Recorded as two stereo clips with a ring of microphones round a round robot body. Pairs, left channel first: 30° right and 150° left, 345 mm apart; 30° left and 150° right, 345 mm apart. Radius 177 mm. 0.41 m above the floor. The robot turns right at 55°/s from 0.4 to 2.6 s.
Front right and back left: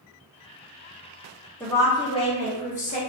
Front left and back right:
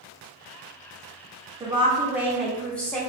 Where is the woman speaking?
105° right, 0.9 m; by 3.0 s 50° right, 0.9 m.